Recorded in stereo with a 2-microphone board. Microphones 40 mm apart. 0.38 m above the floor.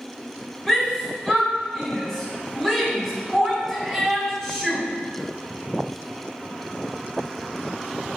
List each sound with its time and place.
0.7 s a shout: 5° left (ahead or behind), 4 m